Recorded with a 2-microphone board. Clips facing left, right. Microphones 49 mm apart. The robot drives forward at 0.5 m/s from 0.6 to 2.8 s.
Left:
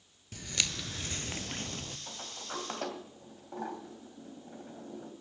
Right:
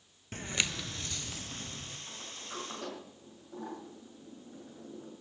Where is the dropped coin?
I don't hear a dropped coin.